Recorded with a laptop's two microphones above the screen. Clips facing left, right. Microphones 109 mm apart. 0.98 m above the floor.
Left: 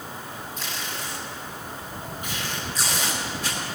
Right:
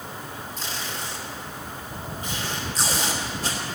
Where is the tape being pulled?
40° right (ahead or behind), 2.5 m.